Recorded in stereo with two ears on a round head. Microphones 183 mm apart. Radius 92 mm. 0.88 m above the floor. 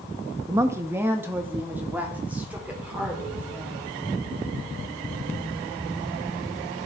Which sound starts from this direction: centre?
A woman speaking, at 0.5 s.